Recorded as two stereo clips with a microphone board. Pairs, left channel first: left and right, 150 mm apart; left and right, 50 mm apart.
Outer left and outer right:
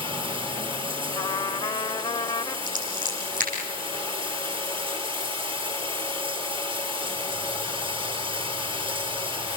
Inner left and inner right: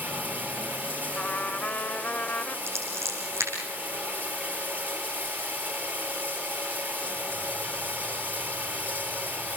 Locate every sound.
0.0 s running water: 35° right (ahead or behind), 3.5 m
1.1 s a trumpet: 30° left (ahead or behind), 0.9 m
2.7 s scissors: 55° right (ahead or behind), 8 m